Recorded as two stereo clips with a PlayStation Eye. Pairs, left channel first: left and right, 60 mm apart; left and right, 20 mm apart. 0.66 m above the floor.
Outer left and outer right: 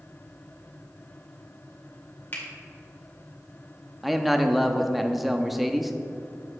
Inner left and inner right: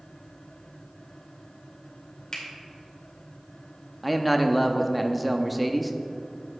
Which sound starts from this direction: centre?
A man speaking, at 4.0 s.